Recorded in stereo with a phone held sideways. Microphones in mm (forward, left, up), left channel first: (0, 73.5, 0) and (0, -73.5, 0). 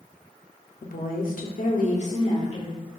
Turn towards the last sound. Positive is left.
turn(degrees=40)  # may be behind; listen again after turning